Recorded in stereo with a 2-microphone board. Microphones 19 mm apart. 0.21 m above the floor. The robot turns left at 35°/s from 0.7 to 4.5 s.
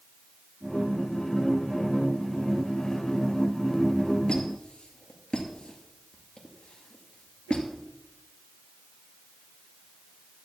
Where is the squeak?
75° left (ahead or behind), 2 m; by 7.7 s 70° left (ahead or behind), 2 m.